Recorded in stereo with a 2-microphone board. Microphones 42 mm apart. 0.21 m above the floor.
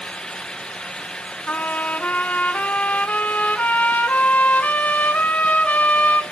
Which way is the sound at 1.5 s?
45° left (ahead or behind).